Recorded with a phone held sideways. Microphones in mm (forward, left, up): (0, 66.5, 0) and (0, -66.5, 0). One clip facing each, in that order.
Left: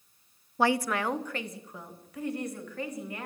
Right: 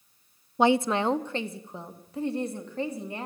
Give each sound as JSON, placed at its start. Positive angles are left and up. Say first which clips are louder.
{"t": 0.6, "sound": "a woman speaking", "louder": "right 4 dB", "side_deg": -20, "distance_m": 0.5}